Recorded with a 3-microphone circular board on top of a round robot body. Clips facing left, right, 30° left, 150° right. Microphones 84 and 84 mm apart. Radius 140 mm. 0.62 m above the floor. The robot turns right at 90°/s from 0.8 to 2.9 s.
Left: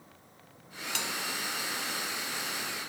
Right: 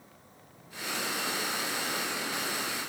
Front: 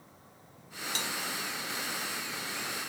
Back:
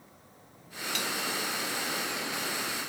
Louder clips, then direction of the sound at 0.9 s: Right 2 dB, back 3 dB; 90° left.